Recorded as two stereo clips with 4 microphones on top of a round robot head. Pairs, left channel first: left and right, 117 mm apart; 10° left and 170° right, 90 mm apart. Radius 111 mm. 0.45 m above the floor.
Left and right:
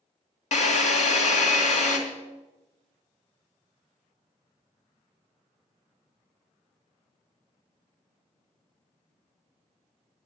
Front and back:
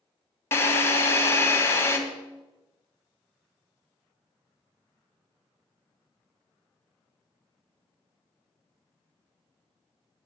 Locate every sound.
0.5 s a drill: 75° left, 2 m